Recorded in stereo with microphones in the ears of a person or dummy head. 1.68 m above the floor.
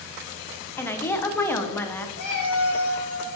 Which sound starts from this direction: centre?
A woman speaking, at 0.8 s.